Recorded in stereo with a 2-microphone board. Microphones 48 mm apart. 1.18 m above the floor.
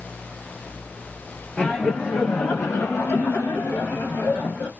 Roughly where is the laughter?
Centre.